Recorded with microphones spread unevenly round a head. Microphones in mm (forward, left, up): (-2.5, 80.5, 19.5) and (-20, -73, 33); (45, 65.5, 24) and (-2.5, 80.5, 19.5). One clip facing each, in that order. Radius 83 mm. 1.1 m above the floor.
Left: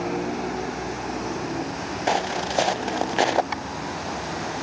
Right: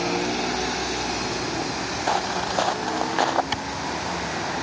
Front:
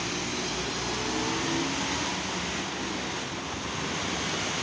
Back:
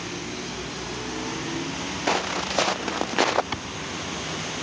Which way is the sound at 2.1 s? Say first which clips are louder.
Left 1 dB, back 7 dB; 150° left.